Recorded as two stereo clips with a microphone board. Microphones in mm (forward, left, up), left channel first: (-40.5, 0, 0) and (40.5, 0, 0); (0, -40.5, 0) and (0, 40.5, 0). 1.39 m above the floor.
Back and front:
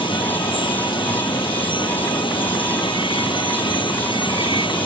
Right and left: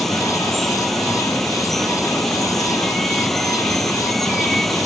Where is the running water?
Straight behind.